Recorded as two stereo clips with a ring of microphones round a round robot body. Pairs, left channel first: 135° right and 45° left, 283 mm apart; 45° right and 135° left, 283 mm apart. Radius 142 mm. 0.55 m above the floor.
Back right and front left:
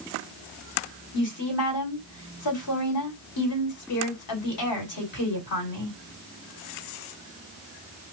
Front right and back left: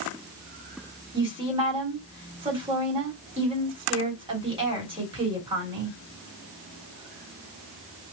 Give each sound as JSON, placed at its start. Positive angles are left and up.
{"t": 1.1, "sound": "a woman speaking", "azimuth_deg": -155, "distance_m": 2.5}